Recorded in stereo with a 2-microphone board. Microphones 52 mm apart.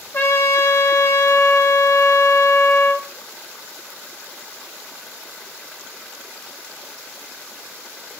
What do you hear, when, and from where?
0.1 s a trumpet: 55° left (ahead or behind), 0.7 m